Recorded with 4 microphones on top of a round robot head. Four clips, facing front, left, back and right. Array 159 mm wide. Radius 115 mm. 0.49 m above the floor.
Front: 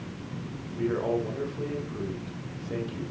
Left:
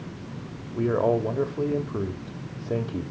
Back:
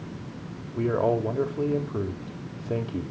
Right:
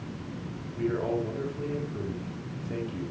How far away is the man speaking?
About 2.5 m.